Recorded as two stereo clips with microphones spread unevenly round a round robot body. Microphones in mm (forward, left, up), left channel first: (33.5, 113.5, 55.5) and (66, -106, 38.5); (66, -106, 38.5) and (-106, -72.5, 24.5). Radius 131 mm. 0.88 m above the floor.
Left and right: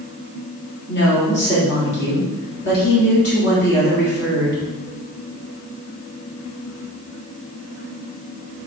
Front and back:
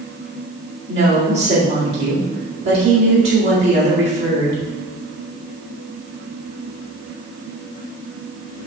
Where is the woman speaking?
140° left, 2 m.